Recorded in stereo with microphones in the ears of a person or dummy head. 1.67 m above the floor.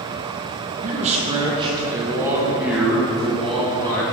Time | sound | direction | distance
0.8 | a man speaking | 40° right (ahead or behind) | 1.6 m